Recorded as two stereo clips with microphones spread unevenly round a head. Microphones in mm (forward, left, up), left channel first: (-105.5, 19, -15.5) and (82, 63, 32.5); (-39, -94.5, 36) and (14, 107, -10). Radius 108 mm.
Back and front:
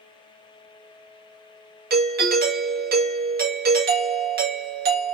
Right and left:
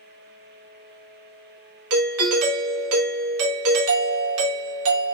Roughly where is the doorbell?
Ahead left.